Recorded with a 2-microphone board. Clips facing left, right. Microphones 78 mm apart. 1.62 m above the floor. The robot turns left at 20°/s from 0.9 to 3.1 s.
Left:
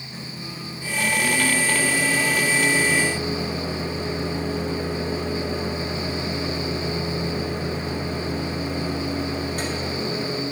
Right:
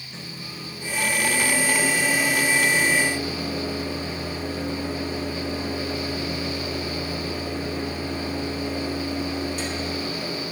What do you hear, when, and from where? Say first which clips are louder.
0.1 s a microwave: left 2 dB; 175° left, 2 m; by 10.4 s 130° left, 2 m